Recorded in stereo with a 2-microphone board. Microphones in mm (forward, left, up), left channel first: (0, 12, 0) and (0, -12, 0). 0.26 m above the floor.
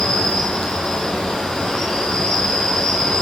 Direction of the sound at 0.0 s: 35° left (ahead or behind).